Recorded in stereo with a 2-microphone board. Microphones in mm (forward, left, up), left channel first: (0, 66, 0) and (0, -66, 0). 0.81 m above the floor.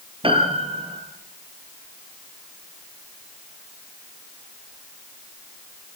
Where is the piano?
45° right (ahead or behind), 4 m.